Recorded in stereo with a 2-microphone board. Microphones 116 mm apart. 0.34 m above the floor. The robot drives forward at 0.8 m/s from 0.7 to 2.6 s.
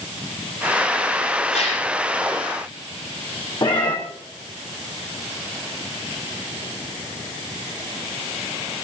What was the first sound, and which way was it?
A gasp, 70° left (ahead or behind).